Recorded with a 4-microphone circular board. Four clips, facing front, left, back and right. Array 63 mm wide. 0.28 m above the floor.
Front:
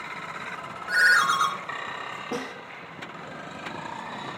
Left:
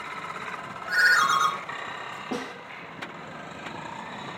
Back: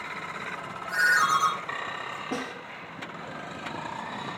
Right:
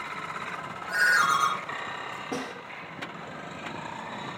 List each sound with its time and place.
0.9 s a ringtone: 30° left, 2 m
2.3 s a snare drum: 100° left, 3.5 m